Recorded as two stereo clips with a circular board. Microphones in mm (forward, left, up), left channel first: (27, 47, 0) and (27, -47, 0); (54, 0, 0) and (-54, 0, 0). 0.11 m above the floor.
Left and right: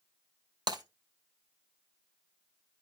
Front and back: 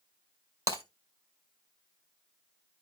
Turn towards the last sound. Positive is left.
turn(degrees=-130)